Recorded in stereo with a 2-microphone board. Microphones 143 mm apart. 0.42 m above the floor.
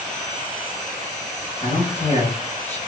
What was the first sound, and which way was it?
A man speaking, 45° left (ahead or behind).